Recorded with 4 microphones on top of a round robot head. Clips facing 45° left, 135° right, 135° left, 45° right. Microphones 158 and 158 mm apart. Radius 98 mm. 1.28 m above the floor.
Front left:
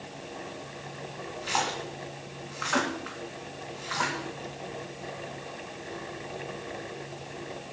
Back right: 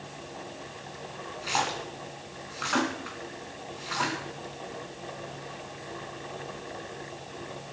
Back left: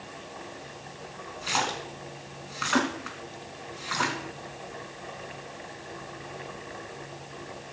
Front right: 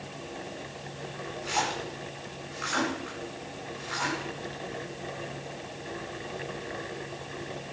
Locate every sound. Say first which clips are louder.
1.4 s a splash: even, even; 145° left, 3 m